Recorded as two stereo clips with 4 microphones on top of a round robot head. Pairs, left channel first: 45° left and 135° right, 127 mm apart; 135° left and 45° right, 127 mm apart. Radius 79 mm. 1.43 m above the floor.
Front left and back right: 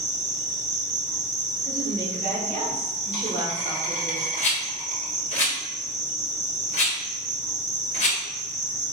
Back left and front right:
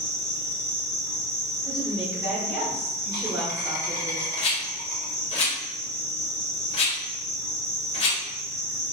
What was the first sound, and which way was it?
An insect, 115° right.